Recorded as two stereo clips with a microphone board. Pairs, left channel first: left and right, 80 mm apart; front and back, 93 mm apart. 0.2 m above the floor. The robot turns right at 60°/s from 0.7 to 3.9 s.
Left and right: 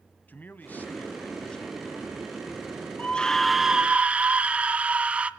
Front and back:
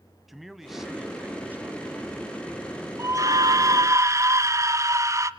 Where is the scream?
150° left, 1.2 m; by 5.3 s 155° right, 1.2 m.